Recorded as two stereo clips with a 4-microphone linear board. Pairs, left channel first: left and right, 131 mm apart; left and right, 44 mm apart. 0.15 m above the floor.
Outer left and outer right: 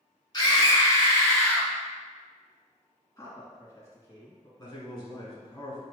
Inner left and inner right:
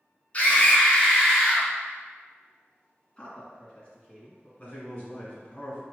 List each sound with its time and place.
0.3 s a scream: 35° left (ahead or behind), 1.3 m; by 1.7 s 5° left (ahead or behind), 1.1 m
3.2 s a man speaking: 25° left (ahead or behind), 1.9 m
4.6 s a man speaking: 30° left (ahead or behind), 1.6 m